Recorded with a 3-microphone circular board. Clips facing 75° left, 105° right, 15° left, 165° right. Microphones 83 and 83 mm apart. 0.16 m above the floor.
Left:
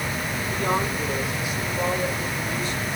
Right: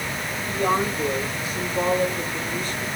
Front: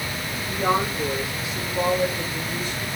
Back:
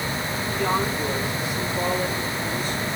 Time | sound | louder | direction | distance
0.5 | a woman speaking | right 3 dB, front 2 dB | 50° right | 7 m